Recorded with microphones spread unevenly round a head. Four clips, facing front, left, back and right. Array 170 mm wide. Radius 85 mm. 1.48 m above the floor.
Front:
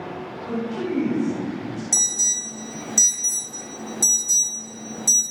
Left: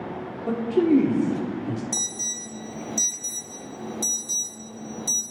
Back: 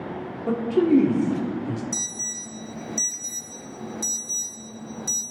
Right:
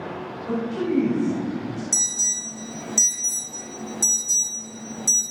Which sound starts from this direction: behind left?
A man speaking, at 0.5 s.